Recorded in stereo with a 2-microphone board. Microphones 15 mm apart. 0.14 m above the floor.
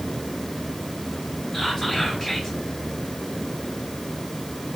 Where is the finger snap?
No finger snap in this recording.